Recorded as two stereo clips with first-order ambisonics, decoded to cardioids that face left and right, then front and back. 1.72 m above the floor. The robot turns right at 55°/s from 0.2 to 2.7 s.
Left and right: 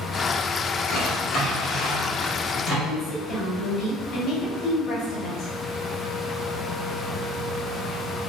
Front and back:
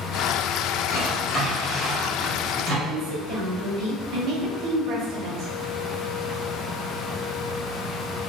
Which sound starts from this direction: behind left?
A woman speaking, at 2.9 s.